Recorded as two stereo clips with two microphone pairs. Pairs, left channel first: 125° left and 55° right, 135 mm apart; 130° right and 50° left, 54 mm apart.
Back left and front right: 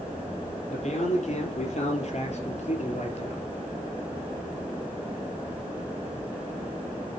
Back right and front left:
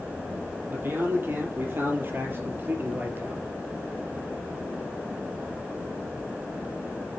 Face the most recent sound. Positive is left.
turn(degrees=100)